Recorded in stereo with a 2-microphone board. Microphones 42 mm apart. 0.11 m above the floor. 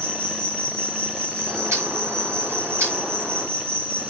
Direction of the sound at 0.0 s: 80° right.